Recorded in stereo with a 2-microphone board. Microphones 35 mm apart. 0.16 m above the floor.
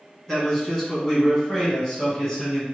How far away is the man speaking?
About 1.3 m.